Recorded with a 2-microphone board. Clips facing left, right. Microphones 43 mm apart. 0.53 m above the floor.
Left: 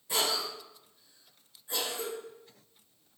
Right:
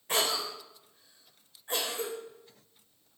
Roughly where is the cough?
Right.